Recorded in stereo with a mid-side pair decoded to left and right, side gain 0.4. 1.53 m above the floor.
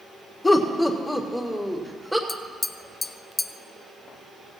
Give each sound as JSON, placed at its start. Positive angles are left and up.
{"t": 0.4, "sound": "laughter", "azimuth_deg": 25, "distance_m": 1.9}
{"t": 2.3, "sound": "tapping", "azimuth_deg": 30, "distance_m": 0.6}